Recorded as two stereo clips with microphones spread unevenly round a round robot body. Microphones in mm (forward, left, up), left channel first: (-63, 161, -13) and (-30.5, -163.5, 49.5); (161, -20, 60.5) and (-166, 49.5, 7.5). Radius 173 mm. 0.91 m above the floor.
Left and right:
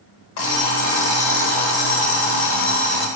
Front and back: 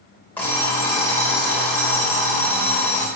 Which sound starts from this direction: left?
An alarm clock, at 0.4 s.